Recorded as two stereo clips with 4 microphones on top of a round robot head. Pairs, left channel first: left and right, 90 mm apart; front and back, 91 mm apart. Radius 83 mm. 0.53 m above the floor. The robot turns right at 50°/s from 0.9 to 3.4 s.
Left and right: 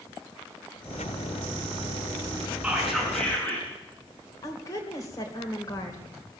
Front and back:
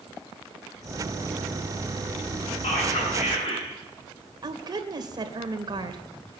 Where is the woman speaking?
145° left, 2.5 m.